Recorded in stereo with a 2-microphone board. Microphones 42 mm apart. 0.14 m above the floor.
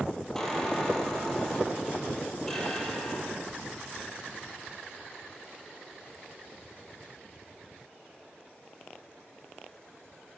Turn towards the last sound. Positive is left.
turn(degrees=10)  # may be behind; listen again after turning